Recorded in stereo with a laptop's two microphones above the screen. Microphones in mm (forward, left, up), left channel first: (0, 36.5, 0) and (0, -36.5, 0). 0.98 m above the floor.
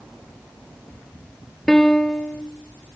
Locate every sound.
1.7 s a piano: 5° left (ahead or behind), 0.7 m